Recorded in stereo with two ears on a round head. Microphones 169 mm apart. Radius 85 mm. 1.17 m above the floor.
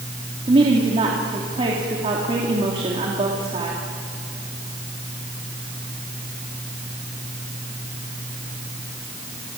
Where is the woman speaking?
30° right (ahead or behind), 3 m.